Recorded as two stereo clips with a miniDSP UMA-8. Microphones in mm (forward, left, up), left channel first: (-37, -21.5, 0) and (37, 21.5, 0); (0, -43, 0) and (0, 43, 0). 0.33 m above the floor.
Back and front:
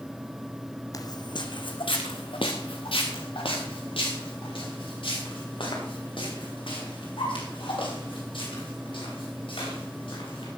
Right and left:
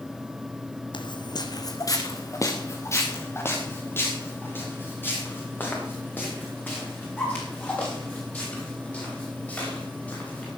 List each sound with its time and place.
0.9 s footsteps: 105° right, 1.1 m; by 10.5 s 160° right, 11 m